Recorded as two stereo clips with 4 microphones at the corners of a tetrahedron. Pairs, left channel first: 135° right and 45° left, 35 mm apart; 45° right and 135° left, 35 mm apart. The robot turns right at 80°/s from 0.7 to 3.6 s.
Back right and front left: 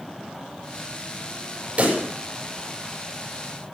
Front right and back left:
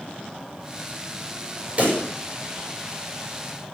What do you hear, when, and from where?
1.8 s a pop: 85° left, 5.5 m; by 2.0 s 105° left, 5.5 m